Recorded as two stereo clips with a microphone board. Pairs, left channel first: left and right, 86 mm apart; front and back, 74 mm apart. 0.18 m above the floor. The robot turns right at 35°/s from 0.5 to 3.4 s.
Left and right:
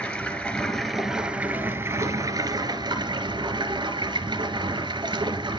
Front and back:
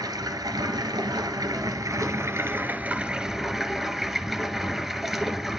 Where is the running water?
170° left, 1.1 m; by 5.6 s 90° right, 1.1 m.